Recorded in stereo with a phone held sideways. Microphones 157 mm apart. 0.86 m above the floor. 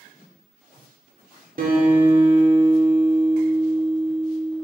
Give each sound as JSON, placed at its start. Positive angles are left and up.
{"t": 1.6, "sound": "a guitar", "side_deg": -60, "distance_m": 2.0}